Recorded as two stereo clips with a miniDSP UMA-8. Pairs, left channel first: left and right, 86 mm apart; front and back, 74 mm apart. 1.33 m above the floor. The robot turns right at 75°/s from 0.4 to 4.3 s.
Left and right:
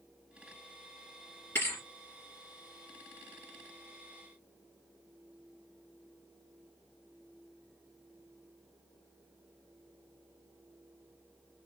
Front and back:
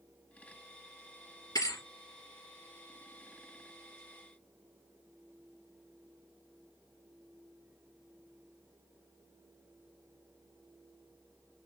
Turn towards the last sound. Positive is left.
turn(degrees=-135)